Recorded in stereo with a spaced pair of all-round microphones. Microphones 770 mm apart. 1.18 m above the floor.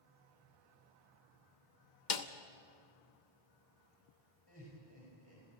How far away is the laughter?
About 5 m.